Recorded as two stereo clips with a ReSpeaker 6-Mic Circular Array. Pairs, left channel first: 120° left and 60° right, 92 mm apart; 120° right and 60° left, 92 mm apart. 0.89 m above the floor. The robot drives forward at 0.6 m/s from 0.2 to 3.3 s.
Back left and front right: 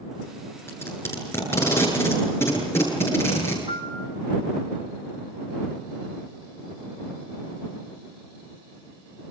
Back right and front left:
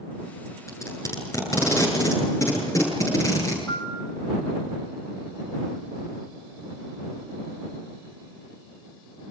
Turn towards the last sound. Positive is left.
turn(degrees=-55)